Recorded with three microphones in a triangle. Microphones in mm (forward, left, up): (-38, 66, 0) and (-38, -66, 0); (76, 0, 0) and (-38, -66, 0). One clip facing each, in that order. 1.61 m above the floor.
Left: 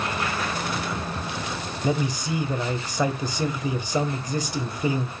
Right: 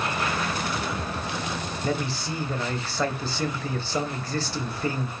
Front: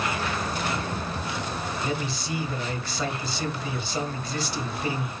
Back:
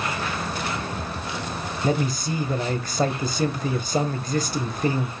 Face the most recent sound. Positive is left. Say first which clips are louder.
# left 4 dB, back 10 dB
turn(degrees=165)